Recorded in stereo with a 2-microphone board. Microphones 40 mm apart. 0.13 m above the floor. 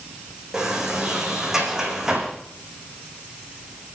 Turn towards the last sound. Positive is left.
turn(degrees=-10)  # may be behind; listen again after turning